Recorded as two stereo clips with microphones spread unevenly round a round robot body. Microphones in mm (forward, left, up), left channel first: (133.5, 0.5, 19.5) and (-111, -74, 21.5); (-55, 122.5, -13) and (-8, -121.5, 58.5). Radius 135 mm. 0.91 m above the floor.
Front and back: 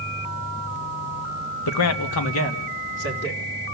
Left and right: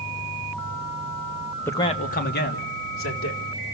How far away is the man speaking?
About 1.0 m.